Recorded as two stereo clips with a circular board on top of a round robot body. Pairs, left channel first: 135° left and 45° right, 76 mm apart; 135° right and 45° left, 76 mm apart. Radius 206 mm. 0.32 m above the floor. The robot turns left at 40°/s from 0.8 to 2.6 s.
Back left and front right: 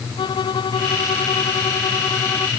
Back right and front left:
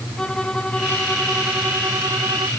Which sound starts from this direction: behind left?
A violin, at 0.2 s.